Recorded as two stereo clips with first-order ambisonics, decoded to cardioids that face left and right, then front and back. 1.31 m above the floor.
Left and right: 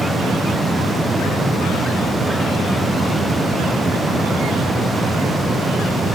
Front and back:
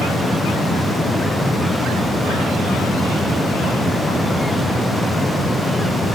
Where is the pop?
No pop in this recording.